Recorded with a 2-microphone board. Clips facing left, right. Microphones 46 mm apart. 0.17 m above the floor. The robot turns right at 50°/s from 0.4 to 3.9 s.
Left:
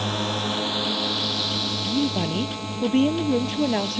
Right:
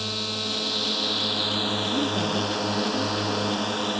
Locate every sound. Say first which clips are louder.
0.0 s a drone: left 5 dB; 140° left; by 4.0 s 45° right
1.8 s a woman speaking: left 4 dB; straight ahead; by 4.0 s 105° left